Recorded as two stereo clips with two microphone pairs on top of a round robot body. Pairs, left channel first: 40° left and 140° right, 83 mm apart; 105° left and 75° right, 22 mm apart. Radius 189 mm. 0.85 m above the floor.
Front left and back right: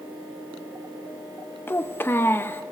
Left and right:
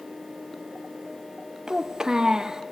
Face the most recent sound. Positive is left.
turn(degrees=-20)